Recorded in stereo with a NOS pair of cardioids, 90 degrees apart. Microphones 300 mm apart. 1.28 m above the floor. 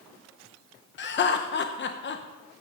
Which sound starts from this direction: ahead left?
Laughter, at 1.0 s.